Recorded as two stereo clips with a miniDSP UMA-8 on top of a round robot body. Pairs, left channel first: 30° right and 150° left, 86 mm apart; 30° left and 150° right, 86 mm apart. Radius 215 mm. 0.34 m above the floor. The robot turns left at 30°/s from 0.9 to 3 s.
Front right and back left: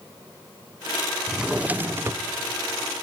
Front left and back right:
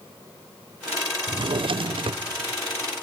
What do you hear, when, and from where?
1.3 s a drawer: 125° right, 0.5 m; by 2.2 s 155° right, 0.5 m